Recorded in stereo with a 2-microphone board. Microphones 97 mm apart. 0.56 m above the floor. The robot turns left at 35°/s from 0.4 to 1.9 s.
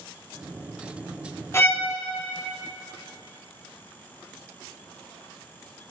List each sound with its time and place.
1.5 s a violin: 25° left (ahead or behind), 1.2 m; by 1.9 s 20° left (ahead or behind), 1.2 m